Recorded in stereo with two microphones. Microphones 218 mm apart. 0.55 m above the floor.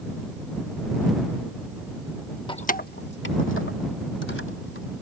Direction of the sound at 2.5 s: 25° left (ahead or behind).